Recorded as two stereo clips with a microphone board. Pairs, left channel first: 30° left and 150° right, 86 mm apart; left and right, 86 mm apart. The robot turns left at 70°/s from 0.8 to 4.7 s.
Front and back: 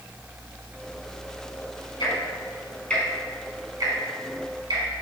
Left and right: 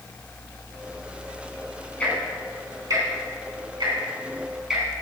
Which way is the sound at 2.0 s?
20° left.